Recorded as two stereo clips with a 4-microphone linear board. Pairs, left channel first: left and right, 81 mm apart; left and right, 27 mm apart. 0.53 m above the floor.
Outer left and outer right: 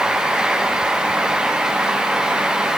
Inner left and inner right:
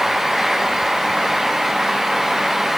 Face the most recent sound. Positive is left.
No sound to turn to.